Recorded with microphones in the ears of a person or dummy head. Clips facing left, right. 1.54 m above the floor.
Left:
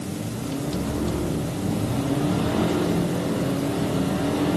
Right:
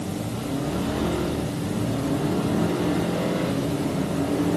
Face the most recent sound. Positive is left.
No sound to turn to.